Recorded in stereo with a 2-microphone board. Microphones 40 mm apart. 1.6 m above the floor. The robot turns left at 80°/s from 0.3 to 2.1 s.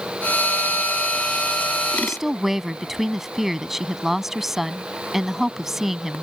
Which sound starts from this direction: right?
A woman speaking, at 1.9 s.